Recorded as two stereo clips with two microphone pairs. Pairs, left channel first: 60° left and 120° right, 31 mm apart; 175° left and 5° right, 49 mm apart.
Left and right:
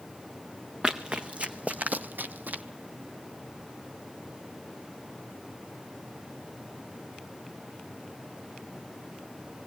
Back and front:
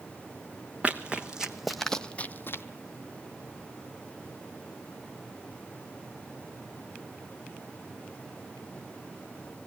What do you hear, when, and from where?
0.8 s running footsteps: 70° right, 1.0 m; by 2.6 s 155° right, 0.5 m